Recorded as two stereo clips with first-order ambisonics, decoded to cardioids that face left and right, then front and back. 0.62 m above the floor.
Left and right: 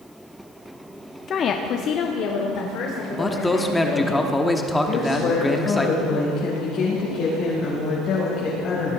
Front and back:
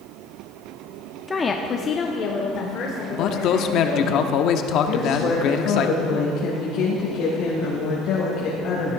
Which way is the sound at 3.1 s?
10° left.